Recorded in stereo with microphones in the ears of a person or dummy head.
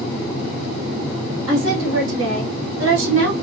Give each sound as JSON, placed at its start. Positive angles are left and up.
{"t": 1.5, "sound": "a woman speaking", "side_deg": -85, "distance_m": 2.5}